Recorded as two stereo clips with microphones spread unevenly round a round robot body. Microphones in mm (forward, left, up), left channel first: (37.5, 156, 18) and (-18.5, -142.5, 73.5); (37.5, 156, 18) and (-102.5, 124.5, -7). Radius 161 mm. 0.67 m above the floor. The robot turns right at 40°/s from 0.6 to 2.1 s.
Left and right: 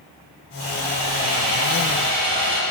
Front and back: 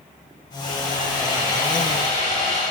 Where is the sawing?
105° right, 4.5 m; by 2.6 s 45° right, 4.5 m.